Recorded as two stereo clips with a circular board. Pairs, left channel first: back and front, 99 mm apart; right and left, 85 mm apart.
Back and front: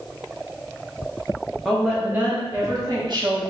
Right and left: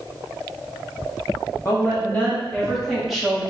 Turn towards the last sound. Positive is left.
turn(degrees=10)